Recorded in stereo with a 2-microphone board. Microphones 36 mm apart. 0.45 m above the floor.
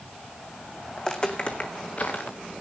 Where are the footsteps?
20° left (ahead or behind), 1.8 m; by 2.4 s 55° left (ahead or behind), 2.5 m.